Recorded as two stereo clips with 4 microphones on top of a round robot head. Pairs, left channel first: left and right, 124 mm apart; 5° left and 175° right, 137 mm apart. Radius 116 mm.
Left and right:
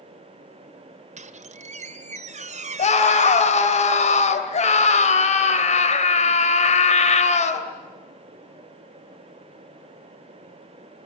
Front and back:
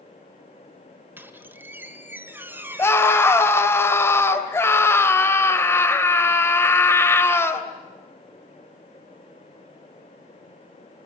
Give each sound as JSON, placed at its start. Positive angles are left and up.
{"t": 1.2, "sound": "a squeak", "azimuth_deg": -100, "distance_m": 1.6}
{"t": 2.8, "sound": "a scream", "azimuth_deg": 75, "distance_m": 2.5}